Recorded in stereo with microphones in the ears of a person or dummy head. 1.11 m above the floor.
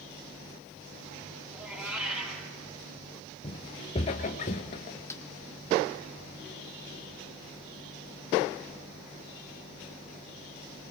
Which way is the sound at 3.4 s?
20° left (ahead or behind).